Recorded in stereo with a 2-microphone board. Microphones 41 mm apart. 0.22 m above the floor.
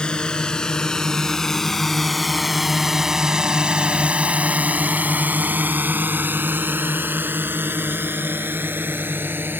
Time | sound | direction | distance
0.0 | a drone | 20° left (ahead or behind) | ?